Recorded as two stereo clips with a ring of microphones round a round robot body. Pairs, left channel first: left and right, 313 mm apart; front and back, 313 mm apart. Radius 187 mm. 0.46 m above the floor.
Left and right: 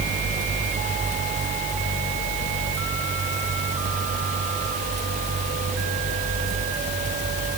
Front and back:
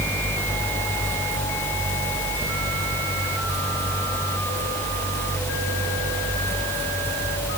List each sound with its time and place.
Only background noise.